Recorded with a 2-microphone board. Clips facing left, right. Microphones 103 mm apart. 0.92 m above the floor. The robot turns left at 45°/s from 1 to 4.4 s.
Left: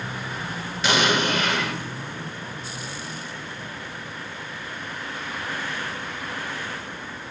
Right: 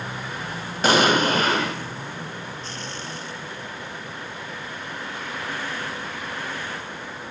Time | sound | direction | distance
0.8 | an explosion | 90° right | 0.7 m